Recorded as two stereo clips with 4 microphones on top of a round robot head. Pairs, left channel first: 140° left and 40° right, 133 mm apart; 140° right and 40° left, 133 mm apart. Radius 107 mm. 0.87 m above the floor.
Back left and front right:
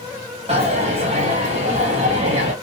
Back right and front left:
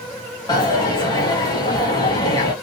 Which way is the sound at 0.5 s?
80° right.